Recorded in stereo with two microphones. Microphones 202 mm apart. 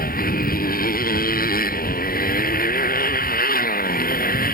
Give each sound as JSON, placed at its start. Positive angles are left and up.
{"t": 0.0, "sound": "a motorcycle", "side_deg": 45}